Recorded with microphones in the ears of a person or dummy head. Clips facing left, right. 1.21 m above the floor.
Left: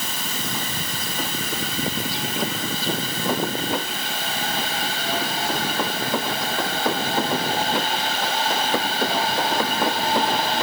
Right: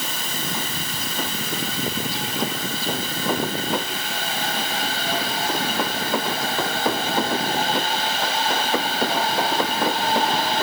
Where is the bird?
I don't hear a bird.